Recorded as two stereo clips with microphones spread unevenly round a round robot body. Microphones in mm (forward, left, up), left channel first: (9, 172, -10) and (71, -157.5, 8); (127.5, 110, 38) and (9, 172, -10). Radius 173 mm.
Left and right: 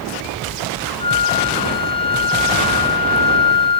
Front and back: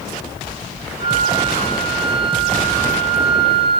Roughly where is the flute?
Behind.